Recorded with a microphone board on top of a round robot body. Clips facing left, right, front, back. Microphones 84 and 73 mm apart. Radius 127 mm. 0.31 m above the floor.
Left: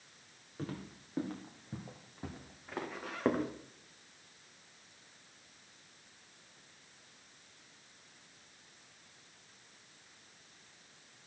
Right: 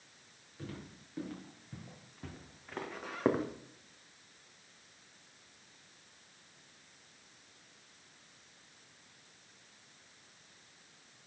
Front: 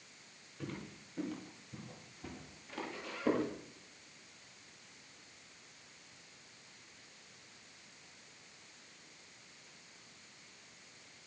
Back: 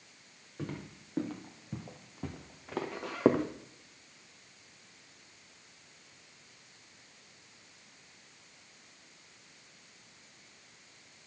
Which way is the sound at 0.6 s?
140° left.